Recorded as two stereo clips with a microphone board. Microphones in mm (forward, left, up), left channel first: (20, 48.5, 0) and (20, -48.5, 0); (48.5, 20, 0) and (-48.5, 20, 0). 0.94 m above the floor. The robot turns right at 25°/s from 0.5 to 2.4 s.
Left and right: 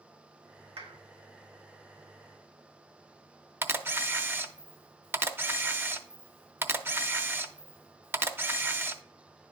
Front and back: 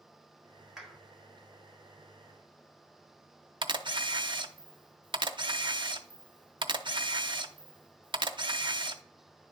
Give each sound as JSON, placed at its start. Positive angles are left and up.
{"t": 0.8, "sound": "a clap", "azimuth_deg": -95, "distance_m": 1.4}
{"t": 3.6, "sound": "a camera shutter", "azimuth_deg": -155, "distance_m": 0.6}